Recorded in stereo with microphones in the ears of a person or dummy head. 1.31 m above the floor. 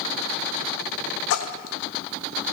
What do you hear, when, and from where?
1.3 s a splash: 75° left (ahead or behind), 1.2 m